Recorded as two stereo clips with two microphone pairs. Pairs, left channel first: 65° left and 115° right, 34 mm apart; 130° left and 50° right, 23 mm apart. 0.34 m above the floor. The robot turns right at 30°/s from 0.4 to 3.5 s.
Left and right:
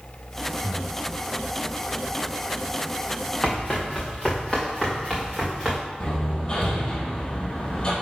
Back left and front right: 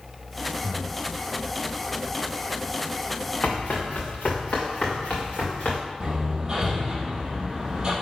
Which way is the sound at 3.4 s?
130° left.